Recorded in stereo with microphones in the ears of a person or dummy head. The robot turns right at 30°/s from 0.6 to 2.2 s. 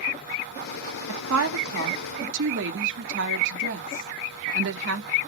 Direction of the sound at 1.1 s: 75° right (ahead or behind).